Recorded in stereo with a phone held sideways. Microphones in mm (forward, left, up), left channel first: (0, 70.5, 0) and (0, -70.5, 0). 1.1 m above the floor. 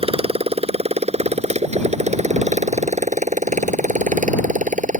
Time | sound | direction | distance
0.0 | a motorcycle | 40° right (ahead or behind) | ?